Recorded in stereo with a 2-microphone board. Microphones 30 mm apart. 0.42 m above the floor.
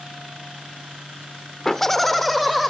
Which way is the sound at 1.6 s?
15° left (ahead or behind).